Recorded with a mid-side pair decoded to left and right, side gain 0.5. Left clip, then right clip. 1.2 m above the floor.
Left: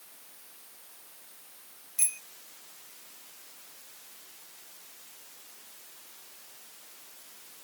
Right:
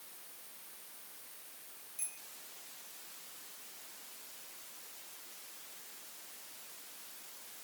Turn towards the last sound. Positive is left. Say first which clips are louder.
# left 14 dB
turn(degrees=70)